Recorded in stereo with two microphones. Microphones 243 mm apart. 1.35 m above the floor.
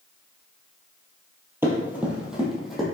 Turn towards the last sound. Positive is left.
turn(degrees=0)  # may be behind; listen again after turning